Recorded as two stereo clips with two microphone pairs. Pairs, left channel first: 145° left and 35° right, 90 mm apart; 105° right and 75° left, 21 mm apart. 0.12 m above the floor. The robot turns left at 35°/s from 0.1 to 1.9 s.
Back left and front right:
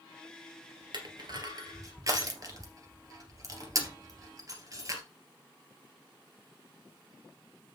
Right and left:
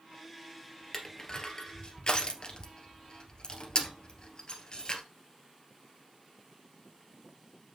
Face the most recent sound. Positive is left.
turn(degrees=-75)